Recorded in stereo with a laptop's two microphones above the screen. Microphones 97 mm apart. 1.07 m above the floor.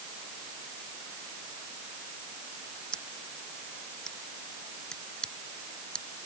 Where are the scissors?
10° left (ahead or behind).